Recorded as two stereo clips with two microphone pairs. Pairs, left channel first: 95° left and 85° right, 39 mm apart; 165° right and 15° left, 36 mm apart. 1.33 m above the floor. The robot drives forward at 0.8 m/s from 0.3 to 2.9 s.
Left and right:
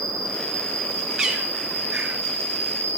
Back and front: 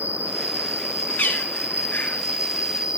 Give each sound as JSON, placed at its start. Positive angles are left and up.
{"t": 0.0, "sound": "an insect", "azimuth_deg": 40, "distance_m": 4.0}
{"t": 1.2, "sound": "a bird", "azimuth_deg": -155, "distance_m": 2.5}